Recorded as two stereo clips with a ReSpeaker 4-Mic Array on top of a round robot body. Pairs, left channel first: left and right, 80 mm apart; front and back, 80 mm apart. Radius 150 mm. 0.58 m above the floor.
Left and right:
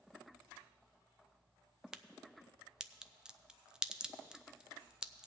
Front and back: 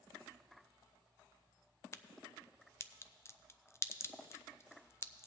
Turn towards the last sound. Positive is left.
turn(degrees=-15)